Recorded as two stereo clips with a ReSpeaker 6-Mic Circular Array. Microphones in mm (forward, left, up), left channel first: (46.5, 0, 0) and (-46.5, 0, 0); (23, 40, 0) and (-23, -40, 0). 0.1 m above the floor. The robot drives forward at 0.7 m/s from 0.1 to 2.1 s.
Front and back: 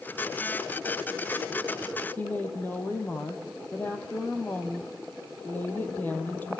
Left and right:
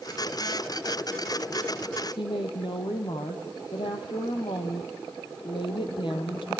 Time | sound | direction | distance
2.2 | a woman speaking | 70° left | 3 m